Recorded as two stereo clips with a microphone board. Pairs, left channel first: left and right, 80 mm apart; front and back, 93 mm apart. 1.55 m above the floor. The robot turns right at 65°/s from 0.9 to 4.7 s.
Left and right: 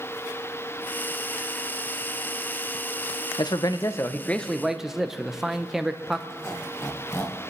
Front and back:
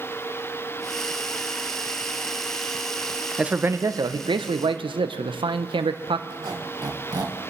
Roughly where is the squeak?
Behind left.